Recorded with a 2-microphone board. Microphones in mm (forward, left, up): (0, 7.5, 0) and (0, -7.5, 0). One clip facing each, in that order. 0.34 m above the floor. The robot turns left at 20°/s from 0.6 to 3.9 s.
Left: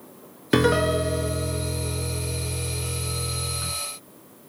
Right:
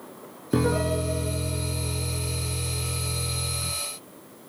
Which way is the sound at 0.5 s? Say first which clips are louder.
Left 4 dB; 100° left.